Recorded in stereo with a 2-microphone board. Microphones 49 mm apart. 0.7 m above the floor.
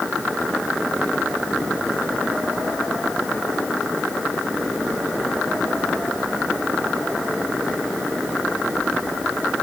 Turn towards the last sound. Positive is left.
No sound to turn to.